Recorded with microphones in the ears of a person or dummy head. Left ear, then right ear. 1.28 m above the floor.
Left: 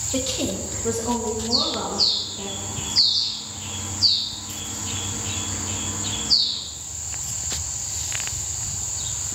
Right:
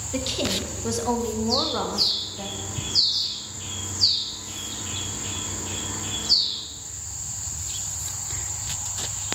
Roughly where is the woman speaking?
Centre.